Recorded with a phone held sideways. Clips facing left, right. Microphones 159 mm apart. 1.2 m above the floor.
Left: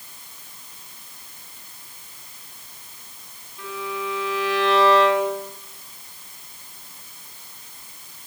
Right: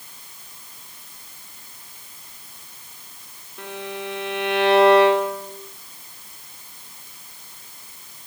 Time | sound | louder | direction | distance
3.6 | a violin | left 1 dB | 65° right (ahead or behind) | 5 m